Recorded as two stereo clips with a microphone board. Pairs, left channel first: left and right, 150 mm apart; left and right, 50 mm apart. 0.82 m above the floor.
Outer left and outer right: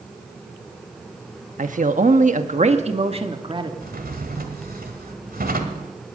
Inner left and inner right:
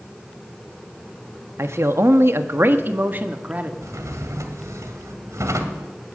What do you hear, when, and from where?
1.6 s a man speaking: 60° right (ahead or behind), 1.2 m; by 3.7 s 30° right (ahead or behind), 1.7 m
3.8 s a drawer: 85° right, 1.9 m